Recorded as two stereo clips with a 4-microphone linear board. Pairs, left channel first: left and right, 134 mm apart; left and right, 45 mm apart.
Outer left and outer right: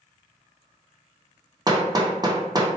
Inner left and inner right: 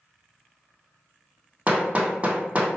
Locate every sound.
1.7 s hammering: 30° right (ahead or behind), 0.7 m